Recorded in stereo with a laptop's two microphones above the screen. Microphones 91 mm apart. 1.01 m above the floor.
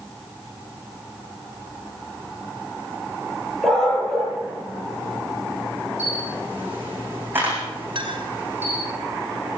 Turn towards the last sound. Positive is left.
turn(degrees=-65)  # may be behind; listen again after turning